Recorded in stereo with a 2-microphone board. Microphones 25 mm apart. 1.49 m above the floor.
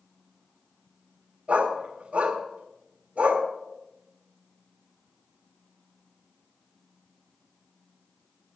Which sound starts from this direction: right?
A dog barking, at 1.5 s.